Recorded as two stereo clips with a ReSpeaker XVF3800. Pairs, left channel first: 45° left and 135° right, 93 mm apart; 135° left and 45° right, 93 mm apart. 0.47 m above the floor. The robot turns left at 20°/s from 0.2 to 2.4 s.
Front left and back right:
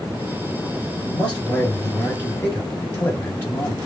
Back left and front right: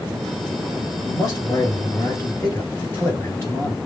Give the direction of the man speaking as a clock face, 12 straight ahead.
8 o'clock.